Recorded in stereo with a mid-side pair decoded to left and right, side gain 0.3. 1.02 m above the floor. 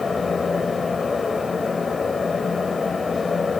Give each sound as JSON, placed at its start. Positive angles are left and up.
{"t": 0.0, "sound": "a fan", "azimuth_deg": 40, "distance_m": 2.5}